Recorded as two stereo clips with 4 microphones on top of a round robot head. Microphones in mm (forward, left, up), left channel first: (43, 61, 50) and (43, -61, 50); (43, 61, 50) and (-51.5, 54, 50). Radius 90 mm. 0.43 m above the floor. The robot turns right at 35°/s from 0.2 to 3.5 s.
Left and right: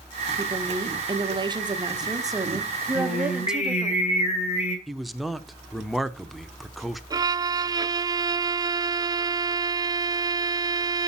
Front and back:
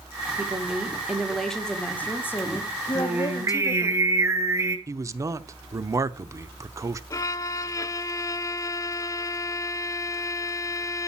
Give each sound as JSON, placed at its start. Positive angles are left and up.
{"t": 0.4, "sound": "a woman speaking", "azimuth_deg": -120, "distance_m": 1.5}
{"t": 3.0, "sound": "singing", "azimuth_deg": 110, "distance_m": 2.5}
{"t": 4.9, "sound": "a man speaking", "azimuth_deg": 180, "distance_m": 0.8}
{"t": 7.1, "sound": "a violin", "azimuth_deg": -40, "distance_m": 0.5}